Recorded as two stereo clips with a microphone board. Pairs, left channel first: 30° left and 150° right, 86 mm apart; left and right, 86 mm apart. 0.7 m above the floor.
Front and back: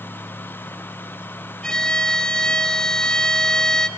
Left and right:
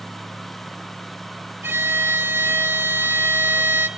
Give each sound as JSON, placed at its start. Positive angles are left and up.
{"t": 1.6, "sound": "a violin", "azimuth_deg": -45, "distance_m": 1.3}